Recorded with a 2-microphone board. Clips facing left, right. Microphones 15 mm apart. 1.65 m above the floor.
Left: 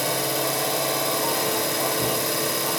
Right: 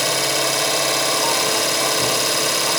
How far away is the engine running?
About 2 m.